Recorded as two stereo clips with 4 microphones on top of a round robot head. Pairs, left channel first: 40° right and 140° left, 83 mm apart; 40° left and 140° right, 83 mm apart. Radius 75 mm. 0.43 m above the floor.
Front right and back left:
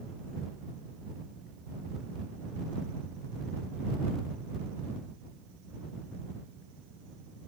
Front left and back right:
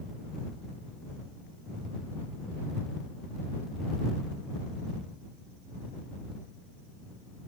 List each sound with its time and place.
Only background noise.